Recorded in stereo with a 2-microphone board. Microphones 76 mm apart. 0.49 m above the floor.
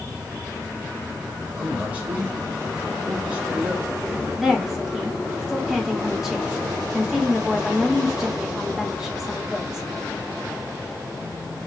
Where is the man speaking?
20° right (ahead or behind), 2.5 m.